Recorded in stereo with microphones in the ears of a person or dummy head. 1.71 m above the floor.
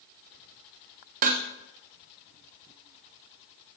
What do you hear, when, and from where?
1.2 s dishes clattering: 40° right (ahead or behind), 0.9 m